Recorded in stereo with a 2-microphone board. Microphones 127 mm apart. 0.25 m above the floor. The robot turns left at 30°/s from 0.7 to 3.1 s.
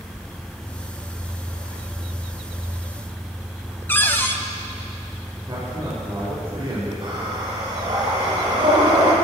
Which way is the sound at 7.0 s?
40° right (ahead or behind).